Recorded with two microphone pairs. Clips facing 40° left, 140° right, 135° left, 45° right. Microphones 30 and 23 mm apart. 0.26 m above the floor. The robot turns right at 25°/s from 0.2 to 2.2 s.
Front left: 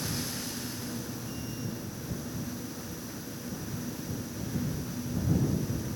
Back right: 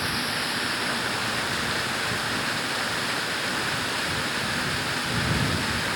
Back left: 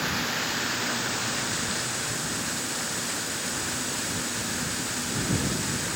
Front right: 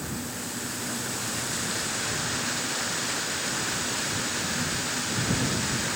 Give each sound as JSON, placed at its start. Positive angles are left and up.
{"t": 0.0, "sound": "running water", "azimuth_deg": 180}